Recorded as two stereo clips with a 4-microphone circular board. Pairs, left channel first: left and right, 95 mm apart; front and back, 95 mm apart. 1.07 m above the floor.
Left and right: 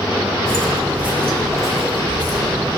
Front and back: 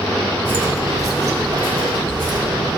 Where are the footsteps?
155° left, 1.1 m; by 2.8 s 135° right, 3 m.